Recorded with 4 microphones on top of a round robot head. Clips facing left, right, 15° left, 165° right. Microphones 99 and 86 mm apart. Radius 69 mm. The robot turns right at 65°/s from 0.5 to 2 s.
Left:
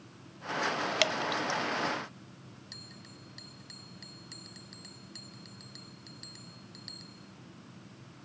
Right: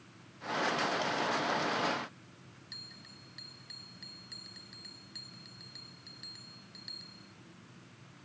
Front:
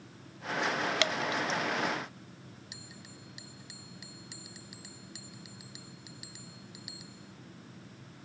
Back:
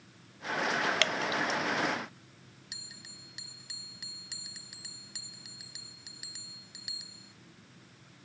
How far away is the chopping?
No chopping in this recording.